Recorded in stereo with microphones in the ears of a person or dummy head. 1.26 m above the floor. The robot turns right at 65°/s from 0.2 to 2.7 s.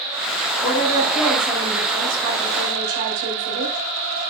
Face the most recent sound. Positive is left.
turn(degrees=-120)